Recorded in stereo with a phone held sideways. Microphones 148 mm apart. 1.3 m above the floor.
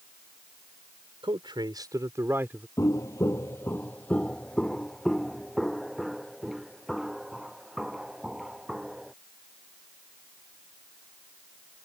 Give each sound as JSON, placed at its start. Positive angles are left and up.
{"t": 1.2, "sound": "a man speaking", "side_deg": -35}
{"t": 2.8, "sound": "footsteps", "side_deg": 20}